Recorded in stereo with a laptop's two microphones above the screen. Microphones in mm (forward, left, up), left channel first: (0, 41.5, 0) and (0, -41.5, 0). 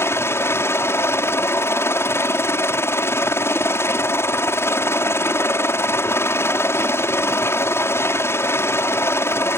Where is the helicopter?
30° left (ahead or behind).